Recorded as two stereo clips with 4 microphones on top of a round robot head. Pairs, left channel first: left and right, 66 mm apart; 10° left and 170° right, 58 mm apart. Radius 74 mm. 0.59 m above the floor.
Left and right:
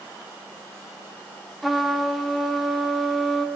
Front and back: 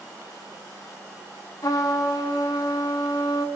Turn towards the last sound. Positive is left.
turn(degrees=0)